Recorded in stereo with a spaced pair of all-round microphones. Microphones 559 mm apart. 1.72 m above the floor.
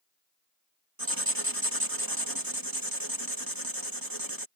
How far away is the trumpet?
No trumpet in this recording.